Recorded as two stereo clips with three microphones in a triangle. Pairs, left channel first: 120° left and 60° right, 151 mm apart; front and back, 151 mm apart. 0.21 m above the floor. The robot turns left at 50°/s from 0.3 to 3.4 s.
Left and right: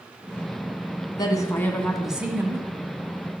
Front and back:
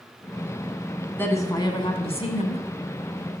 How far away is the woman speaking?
About 1.7 m.